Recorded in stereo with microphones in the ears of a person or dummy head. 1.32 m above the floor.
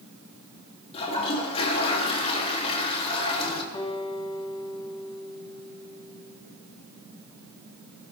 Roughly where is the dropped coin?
No dropped coin in this recording.